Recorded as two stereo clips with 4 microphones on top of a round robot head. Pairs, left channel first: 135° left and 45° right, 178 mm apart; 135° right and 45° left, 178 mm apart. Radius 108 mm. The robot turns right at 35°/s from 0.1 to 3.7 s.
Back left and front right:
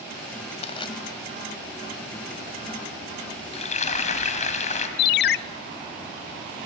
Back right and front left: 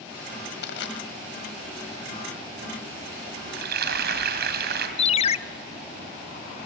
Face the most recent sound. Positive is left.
turn(degrees=165)